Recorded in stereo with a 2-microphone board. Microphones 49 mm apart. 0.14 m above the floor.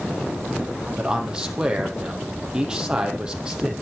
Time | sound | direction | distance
1.0 | a man speaking | 15° right (ahead or behind) | 5 m